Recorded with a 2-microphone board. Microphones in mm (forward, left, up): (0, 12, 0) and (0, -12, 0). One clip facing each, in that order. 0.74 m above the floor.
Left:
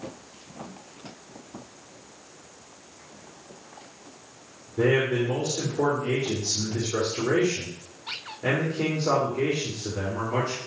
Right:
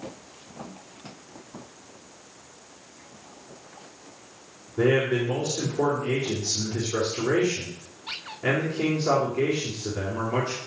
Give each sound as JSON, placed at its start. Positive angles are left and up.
{"t": 4.8, "sound": "a man speaking", "side_deg": 0, "distance_m": 2.5}